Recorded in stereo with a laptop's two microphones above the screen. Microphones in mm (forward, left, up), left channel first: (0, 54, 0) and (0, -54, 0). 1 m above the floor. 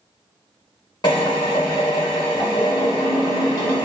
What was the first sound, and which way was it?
A drill, 40° left (ahead or behind).